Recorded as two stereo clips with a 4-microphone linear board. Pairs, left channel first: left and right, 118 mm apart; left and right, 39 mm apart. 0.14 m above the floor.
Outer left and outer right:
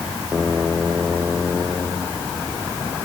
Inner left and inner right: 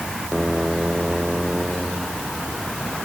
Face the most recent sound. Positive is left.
No sound to turn to.